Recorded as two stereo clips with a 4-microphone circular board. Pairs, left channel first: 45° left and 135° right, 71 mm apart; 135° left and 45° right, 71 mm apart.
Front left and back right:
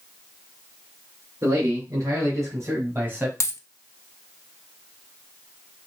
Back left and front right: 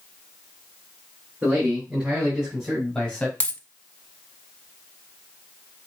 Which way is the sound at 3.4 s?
70° left.